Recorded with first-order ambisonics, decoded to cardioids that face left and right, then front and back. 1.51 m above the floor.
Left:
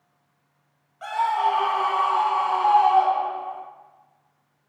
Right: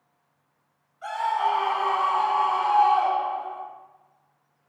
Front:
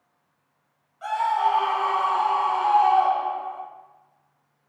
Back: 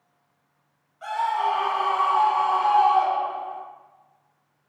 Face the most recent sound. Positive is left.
turn(degrees=130)